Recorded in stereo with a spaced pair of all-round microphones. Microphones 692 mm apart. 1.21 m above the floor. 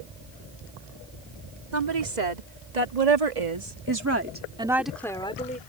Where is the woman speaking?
85° right; by 5.6 s 10° left (ahead or behind).